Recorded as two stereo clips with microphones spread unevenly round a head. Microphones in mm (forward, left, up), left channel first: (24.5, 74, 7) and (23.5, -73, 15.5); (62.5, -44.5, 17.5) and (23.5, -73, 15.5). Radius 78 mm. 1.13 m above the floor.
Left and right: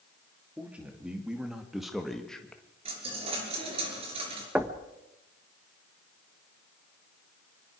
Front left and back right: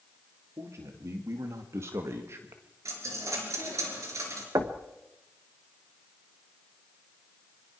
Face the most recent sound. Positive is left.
turn(degrees=-175)